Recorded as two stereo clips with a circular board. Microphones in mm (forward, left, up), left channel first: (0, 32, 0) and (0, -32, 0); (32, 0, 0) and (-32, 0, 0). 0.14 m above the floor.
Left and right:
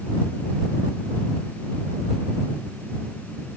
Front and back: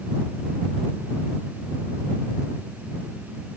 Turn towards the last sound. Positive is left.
No sound to turn to.